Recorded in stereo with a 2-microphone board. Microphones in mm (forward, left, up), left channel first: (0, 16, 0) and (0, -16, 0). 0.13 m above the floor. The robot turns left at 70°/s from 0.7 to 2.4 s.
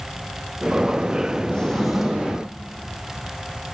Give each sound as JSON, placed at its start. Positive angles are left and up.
{"t": 1.5, "sound": "a drawer", "azimuth_deg": 30, "distance_m": 4.0}